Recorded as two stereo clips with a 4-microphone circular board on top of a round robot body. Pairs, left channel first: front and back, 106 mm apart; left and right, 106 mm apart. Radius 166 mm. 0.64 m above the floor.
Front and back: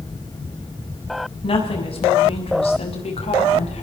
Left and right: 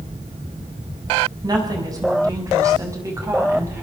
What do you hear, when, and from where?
1.4 s a woman speaking: 35° right, 6 m; by 3.8 s 25° right, 5 m